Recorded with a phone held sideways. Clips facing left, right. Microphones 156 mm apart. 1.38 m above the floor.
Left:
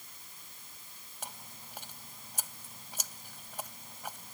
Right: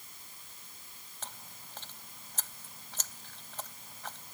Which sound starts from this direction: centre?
Chewing, at 1.2 s.